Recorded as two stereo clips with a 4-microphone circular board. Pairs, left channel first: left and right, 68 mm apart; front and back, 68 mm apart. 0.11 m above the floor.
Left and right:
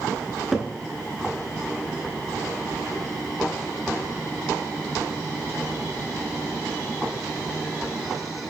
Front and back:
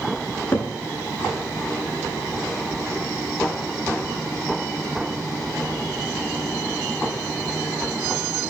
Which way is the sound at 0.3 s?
Straight ahead.